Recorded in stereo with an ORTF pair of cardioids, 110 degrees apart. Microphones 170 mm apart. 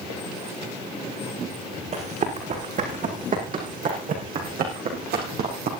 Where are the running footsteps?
45° right, 7 m; by 5.7 s 65° right, 5.5 m.